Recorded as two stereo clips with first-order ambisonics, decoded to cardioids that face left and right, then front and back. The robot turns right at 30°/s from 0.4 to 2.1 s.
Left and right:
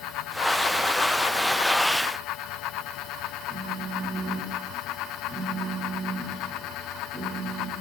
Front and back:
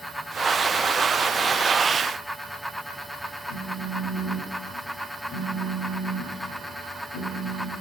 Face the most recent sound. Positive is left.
turn(degrees=-5)